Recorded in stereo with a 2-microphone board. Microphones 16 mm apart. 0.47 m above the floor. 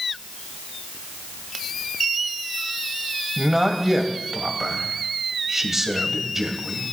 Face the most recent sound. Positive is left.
turn(degrees=-25)  # may be behind; listen again after turning